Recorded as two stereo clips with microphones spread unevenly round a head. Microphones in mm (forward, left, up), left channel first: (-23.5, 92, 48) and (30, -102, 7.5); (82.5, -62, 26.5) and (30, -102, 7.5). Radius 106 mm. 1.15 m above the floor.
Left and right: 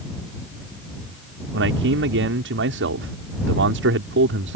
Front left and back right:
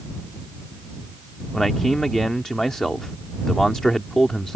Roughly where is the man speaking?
Ahead right.